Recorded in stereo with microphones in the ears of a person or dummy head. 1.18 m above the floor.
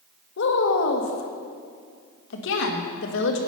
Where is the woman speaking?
70° left (ahead or behind), 1.7 m.